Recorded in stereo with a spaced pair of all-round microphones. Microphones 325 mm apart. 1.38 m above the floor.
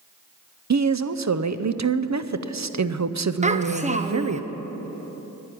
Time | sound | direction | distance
0.7 | a woman speaking | 55° right (ahead or behind) | 0.5 m
3.4 | a child speaking | 20° right (ahead or behind) | 0.6 m